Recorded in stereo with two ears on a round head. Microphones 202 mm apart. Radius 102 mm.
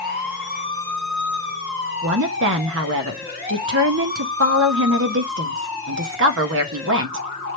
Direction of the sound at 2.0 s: 60° right (ahead or behind).